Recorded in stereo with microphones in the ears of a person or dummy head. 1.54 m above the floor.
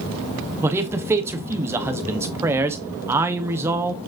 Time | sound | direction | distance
0.6 | a man speaking | 15° right (ahead or behind) | 0.9 m